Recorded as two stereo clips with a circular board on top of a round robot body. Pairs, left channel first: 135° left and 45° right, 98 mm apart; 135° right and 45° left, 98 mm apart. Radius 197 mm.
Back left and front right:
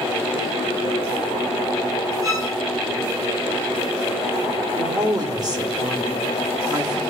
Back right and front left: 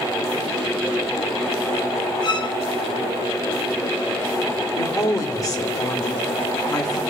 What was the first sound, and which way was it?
A violin, 95° right.